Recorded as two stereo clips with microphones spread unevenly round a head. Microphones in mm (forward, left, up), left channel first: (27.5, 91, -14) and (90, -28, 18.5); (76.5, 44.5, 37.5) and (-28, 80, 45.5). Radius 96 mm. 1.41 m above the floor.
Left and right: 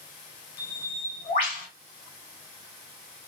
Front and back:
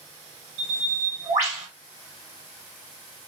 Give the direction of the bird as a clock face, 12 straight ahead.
6 o'clock.